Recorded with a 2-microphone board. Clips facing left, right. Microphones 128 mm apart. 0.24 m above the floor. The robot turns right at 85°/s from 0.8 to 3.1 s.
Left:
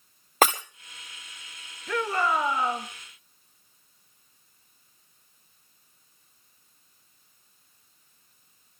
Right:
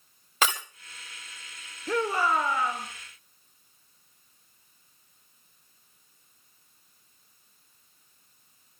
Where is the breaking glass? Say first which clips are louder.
Left 6 dB; 50° left (ahead or behind), 1.8 m.